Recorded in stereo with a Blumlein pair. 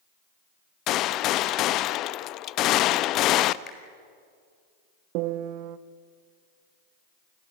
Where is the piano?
45° right, 0.7 m.